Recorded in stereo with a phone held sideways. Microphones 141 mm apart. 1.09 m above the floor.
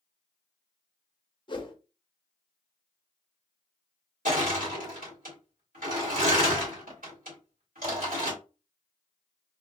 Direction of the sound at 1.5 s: 35° left (ahead or behind).